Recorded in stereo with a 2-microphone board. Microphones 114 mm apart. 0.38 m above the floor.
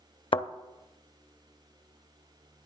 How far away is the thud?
About 0.5 m.